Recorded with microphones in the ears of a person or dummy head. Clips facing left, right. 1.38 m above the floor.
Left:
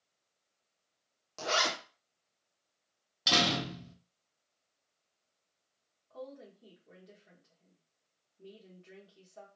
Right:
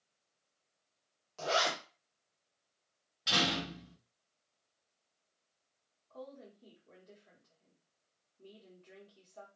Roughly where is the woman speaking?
Centre.